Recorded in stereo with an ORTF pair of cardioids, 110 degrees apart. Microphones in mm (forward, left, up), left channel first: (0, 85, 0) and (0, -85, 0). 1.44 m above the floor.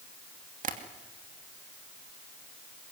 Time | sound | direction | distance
0.6 | tapping | 50° right | 2.5 m